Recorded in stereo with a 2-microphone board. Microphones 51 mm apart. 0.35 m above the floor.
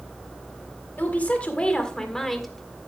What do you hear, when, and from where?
1.0 s a woman speaking: 40° left (ahead or behind), 1.9 m; by 2.5 s centre (ahead or behind), 1.8 m